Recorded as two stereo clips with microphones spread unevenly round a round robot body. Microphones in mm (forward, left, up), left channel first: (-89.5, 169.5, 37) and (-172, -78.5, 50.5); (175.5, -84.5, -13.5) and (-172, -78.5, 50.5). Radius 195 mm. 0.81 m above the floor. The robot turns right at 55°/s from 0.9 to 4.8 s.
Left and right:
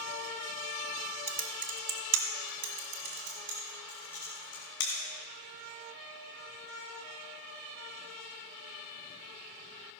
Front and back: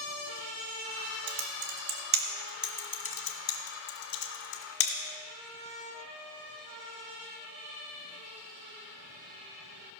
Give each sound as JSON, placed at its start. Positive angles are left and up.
{"t": 1.3, "sound": "typing on a keyboard", "azimuth_deg": -170, "distance_m": 1.4}